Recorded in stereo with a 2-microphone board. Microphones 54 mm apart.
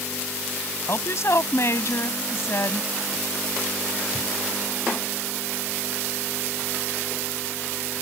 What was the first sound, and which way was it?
A woman speaking, 60° left (ahead or behind).